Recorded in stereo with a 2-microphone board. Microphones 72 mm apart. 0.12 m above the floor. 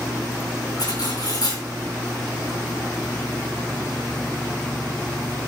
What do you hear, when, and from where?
0.8 s cutlery clinking: 60° left (ahead or behind), 6 m